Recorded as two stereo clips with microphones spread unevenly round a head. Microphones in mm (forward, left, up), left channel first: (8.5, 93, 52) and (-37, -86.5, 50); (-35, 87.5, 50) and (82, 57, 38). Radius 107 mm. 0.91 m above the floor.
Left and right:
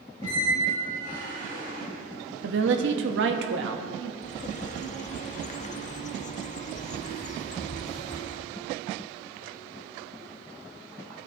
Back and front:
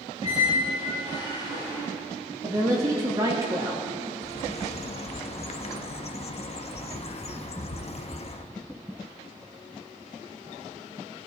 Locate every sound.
0.2 s a squeak: 55° right, 4.5 m
2.4 s a woman speaking: 85° right, 1.0 m
4.2 s a bird: 130° left, 0.8 m